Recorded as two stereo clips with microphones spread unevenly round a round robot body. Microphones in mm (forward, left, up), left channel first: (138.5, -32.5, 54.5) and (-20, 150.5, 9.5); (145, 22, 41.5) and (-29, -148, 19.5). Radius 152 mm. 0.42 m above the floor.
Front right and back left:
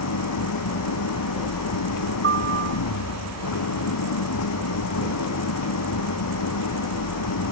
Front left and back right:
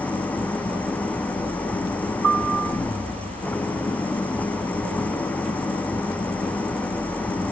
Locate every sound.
0.0 s an engine running: 40° right
2.2 s a piano: 175° right